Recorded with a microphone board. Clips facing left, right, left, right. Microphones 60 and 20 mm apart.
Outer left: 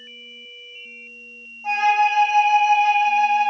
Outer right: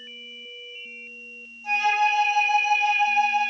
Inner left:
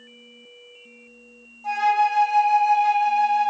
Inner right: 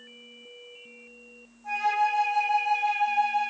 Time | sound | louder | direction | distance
1.6 | a flute | outer left 4 dB, inner left 5 dB | 40° left (ahead or behind) | 1.8 m